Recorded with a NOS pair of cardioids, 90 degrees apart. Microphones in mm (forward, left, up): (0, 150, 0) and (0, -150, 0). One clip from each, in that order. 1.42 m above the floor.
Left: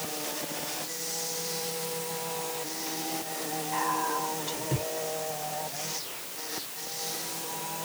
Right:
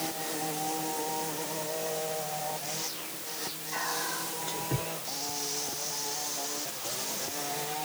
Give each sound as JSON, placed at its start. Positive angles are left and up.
{"t": 3.7, "sound": "whispering", "azimuth_deg": 15, "distance_m": 2.0}